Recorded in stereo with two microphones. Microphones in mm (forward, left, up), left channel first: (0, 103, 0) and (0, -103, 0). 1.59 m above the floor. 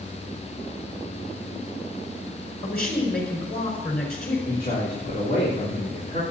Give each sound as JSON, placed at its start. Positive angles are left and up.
{"t": 2.6, "sound": "a man speaking", "side_deg": 50, "distance_m": 5.0}
{"t": 4.5, "sound": "a man speaking", "side_deg": 45, "distance_m": 3.5}